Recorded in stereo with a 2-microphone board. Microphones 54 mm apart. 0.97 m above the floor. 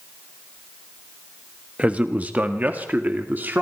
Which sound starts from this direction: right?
A man speaking, at 1.8 s.